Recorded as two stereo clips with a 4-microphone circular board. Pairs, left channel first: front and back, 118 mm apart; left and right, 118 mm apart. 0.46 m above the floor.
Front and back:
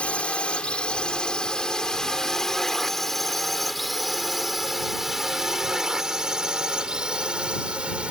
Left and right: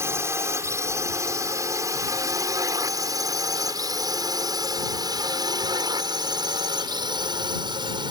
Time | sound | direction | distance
0.0 | a drone | 65° right | ?